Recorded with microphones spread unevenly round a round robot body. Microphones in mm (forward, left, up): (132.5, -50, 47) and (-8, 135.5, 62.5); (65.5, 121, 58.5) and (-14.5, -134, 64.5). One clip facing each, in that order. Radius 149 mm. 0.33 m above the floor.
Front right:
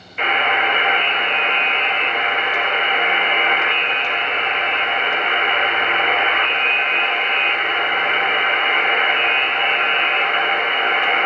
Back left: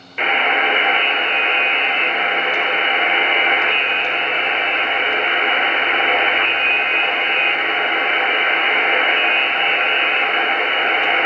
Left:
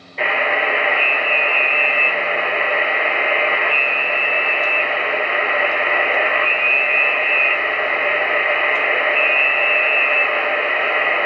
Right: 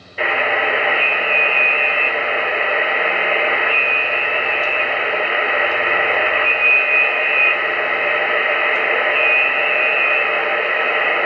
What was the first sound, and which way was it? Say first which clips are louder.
A buzzer: back left 1 dB, right 1 dB; 165° left.